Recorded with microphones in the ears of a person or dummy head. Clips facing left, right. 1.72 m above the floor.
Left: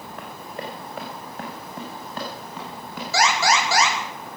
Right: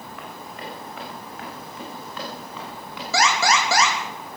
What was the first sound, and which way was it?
Running footsteps, 30° left (ahead or behind).